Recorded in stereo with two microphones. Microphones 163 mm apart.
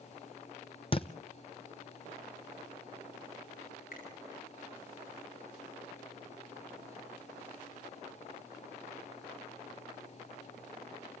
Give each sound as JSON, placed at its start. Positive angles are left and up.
{"t": 0.9, "sound": "a thud", "side_deg": 35, "distance_m": 0.9}
{"t": 3.9, "sound": "a finger snap", "side_deg": 55, "distance_m": 9.5}